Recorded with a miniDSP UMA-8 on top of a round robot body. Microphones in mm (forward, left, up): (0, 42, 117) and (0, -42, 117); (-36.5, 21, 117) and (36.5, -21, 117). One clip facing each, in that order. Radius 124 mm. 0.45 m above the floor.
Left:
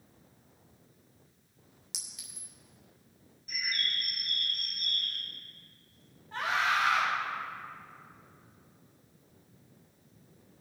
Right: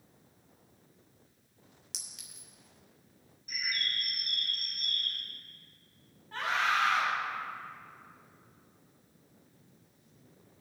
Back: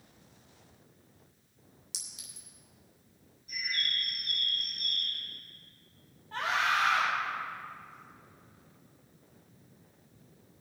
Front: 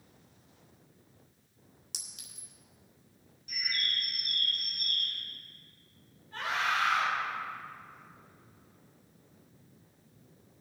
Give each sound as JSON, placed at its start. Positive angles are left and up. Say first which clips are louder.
{"t": 1.9, "sound": "a clink", "louder": "left 3 dB, front 1 dB", "azimuth_deg": 0, "distance_m": 2.0}
{"t": 3.5, "sound": "a bird", "louder": "left 1 dB, even", "azimuth_deg": -5, "distance_m": 1.6}
{"t": 6.3, "sound": "a scream", "louder": "left 1 dB, back 2 dB", "azimuth_deg": 180, "distance_m": 3.0}